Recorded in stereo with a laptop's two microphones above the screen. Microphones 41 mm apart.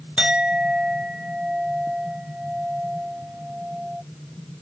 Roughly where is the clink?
Right.